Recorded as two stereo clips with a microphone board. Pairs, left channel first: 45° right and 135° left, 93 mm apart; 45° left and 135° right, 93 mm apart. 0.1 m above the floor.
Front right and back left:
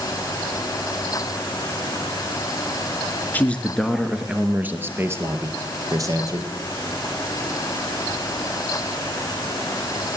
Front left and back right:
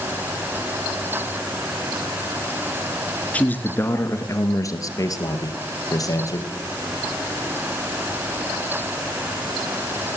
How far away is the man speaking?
About 1.1 m.